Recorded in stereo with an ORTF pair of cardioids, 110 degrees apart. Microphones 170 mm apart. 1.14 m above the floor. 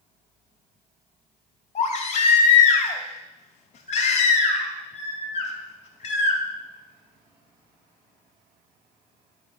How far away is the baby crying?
About 2.5 m.